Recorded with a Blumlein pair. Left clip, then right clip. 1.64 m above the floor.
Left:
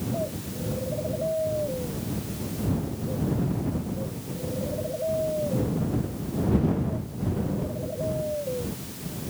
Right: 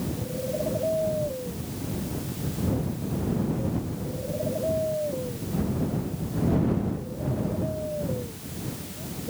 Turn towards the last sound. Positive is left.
No sound to turn to.